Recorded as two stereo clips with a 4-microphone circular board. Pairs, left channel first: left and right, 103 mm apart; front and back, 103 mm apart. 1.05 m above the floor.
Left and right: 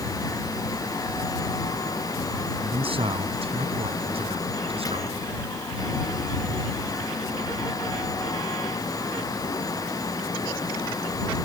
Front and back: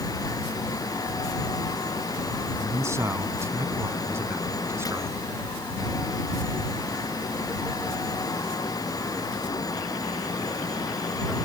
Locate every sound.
2.6 s a man speaking: 120° right; by 5.1 s 115° right